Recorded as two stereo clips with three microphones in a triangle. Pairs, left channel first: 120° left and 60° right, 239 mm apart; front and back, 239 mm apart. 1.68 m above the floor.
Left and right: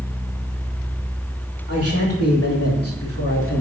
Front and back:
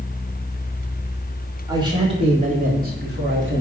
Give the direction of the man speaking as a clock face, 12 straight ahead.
8 o'clock.